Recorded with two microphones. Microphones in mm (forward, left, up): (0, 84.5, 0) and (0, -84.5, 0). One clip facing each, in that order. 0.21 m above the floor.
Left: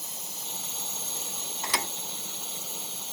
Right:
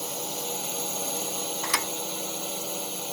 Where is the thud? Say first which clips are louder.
Left 2 dB; 25° left (ahead or behind).